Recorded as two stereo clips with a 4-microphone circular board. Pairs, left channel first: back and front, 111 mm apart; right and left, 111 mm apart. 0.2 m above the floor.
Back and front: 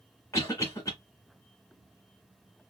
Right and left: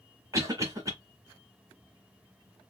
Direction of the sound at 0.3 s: 130° left.